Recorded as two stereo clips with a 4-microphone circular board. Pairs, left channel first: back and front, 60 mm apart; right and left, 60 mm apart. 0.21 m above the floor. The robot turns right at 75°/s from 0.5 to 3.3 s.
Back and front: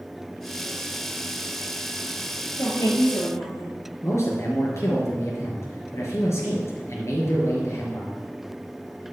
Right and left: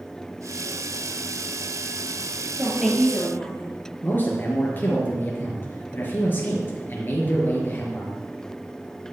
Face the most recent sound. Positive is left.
turn(degrees=-145)